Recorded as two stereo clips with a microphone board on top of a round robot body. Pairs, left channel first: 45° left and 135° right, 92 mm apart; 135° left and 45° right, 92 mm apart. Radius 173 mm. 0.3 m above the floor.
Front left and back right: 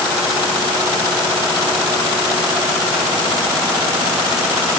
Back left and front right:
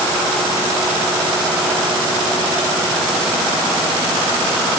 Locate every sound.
Only background noise.